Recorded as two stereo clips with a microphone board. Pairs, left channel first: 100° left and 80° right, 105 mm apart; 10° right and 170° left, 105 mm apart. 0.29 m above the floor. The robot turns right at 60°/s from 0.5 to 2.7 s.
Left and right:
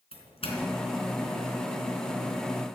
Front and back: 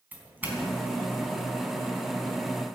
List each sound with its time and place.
0.1 s a doorbell: 100° left, 3.5 m; by 1.5 s 160° left, 3.5 m